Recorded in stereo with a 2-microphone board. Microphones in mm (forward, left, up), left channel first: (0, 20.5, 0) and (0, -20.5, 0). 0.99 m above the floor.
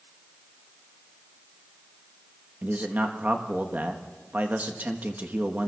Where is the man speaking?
50° right (ahead or behind), 1.2 m.